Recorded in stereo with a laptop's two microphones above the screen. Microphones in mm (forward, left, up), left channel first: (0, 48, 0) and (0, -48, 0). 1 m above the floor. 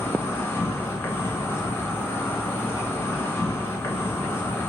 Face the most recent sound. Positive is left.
turn(degrees=25)  # may be behind; listen again after turning